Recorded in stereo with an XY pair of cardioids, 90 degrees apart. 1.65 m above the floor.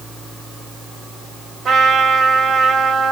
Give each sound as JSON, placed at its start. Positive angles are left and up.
{"t": 1.6, "sound": "a trumpet", "azimuth_deg": -50, "distance_m": 2.0}